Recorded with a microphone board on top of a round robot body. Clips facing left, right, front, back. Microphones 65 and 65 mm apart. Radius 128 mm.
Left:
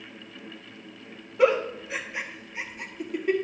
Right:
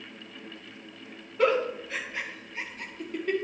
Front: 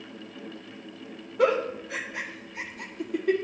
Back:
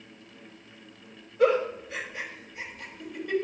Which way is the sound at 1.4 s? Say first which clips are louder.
Left 3 dB, back 1 dB; 15° left.